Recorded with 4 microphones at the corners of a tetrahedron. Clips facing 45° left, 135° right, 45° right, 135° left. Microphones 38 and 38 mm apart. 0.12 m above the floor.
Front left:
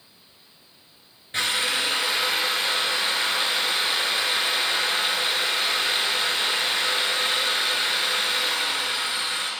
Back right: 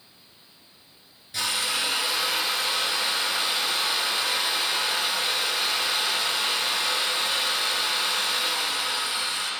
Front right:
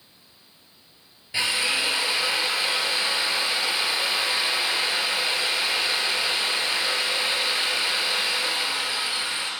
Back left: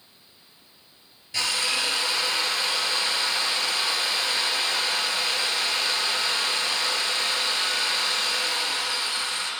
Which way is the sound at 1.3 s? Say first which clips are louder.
Front left 3 dB, front right 2 dB; 15° left.